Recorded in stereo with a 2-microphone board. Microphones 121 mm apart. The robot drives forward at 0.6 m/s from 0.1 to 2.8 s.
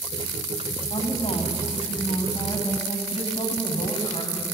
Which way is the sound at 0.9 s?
50° left (ahead or behind).